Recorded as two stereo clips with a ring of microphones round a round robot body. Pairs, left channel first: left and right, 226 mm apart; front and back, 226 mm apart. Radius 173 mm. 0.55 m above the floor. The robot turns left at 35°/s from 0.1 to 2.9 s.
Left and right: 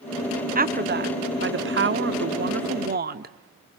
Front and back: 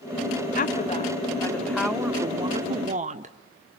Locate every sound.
0.6 s a woman speaking: 45° right, 1.1 m; by 3.4 s 130° right, 1.1 m